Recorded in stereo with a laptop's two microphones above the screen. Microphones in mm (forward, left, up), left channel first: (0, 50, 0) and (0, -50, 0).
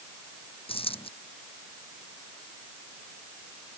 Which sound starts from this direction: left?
A dropped coin, at 0.7 s.